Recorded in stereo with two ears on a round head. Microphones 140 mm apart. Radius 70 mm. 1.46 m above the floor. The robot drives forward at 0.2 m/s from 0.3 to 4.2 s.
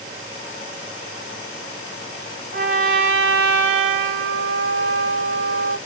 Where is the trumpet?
55° right (ahead or behind), 0.7 m; by 5.8 s 80° right, 0.6 m.